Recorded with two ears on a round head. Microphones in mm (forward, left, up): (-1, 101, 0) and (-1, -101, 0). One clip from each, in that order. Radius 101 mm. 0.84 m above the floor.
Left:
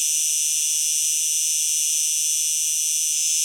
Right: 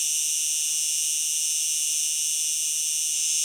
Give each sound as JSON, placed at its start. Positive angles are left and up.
{"t": 0.0, "sound": "an insect", "side_deg": 10, "distance_m": 0.7}